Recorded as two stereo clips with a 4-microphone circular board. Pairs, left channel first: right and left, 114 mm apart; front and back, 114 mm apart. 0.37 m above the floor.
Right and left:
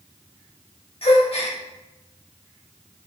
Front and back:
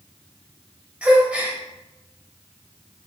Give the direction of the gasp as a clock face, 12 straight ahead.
3 o'clock.